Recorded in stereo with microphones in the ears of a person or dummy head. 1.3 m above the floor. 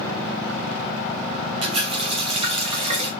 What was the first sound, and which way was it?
A running tap, 30° right (ahead or behind).